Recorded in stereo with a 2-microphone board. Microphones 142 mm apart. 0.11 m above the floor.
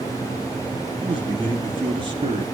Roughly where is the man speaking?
Right.